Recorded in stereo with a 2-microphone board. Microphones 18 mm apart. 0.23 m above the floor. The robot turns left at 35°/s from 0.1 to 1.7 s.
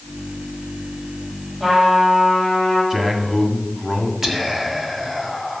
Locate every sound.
1.6 s a trumpet: 40° right (ahead or behind), 5.5 m; by 2.8 s 45° right (ahead or behind), 5.5 m
2.9 s a man speaking: 25° right (ahead or behind), 1.6 m
4.2 s whispering: 25° right (ahead or behind), 1.5 m